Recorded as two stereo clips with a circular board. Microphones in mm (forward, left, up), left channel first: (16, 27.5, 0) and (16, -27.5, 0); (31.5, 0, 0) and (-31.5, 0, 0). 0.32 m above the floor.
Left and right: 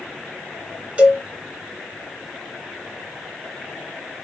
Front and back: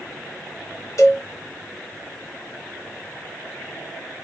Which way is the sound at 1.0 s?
25° right.